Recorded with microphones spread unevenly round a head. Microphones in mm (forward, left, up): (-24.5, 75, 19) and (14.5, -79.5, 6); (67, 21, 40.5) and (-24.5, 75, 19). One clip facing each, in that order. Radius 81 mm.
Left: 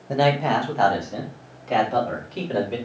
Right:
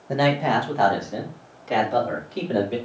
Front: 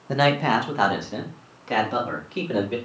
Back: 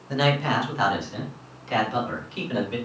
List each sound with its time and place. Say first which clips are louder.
0.1 s a man speaking: left 1 dB, front 3 dB; 10° left, 0.8 m